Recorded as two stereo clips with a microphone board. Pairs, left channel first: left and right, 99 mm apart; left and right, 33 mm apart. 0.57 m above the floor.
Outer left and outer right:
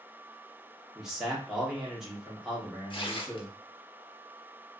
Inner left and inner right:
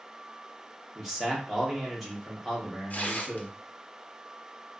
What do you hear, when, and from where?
0.9 s a man speaking: 5° right (ahead or behind), 1.0 m
2.9 s tearing paper: 55° left (ahead or behind), 0.6 m